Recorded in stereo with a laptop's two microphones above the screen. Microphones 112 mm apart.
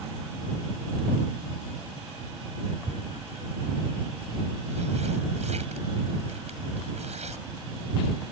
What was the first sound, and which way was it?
Tearing paper, 85° right.